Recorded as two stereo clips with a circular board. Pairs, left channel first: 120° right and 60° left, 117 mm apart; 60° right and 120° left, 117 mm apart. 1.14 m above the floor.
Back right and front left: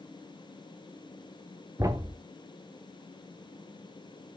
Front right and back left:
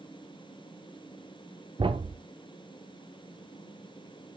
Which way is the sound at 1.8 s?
110° left.